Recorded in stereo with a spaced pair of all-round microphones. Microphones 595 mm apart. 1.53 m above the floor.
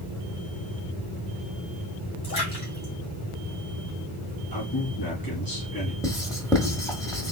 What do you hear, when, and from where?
2.2 s a splash: 20° left (ahead or behind), 2.5 m
4.5 s a man speaking: 35° left (ahead or behind), 2.5 m
6.0 s writing: 5° left (ahead or behind), 1.3 m